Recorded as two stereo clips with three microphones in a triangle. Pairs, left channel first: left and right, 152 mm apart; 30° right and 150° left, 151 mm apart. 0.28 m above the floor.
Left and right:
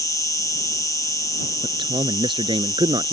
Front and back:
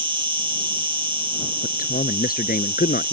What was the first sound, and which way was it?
An insect, 135° left.